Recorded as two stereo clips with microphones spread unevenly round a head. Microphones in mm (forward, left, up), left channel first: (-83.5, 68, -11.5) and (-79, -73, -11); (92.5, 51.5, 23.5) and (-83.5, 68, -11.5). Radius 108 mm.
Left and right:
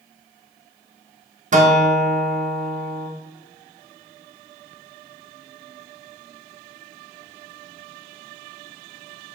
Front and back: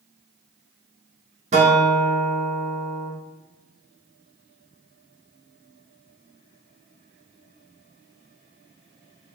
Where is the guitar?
120° right, 1.0 m.